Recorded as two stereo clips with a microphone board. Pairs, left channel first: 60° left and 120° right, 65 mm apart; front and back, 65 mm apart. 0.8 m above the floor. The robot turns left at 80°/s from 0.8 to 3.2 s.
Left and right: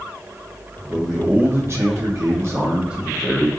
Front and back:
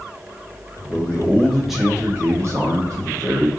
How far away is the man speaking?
About 1.2 m.